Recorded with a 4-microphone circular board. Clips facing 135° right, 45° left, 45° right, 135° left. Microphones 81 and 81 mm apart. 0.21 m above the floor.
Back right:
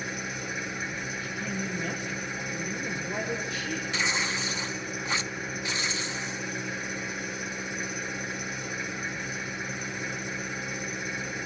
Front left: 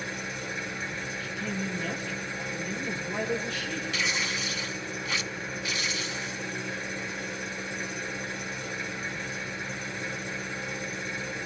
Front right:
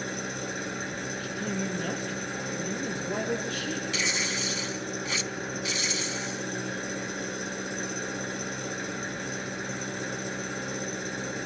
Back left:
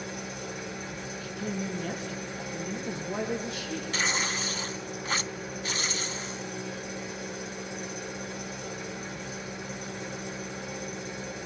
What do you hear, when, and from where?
0.0 s an engine running: 55° right, 1.6 m
1.2 s a woman speaking: 60° right, 7 m
3.9 s tearing paper: 170° left, 0.6 m